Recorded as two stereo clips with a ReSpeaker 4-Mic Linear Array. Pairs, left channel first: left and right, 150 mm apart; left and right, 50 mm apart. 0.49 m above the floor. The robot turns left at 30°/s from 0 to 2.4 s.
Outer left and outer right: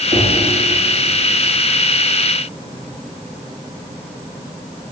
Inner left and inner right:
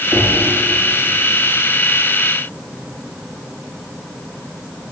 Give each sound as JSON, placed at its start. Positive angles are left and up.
{"t": 0.1, "sound": "knocking", "side_deg": -45, "distance_m": 9.0}